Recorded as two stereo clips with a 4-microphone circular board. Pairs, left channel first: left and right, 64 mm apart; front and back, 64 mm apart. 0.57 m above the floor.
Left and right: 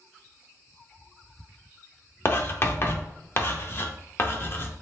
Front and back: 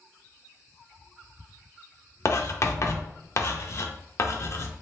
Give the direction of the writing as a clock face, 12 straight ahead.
11 o'clock.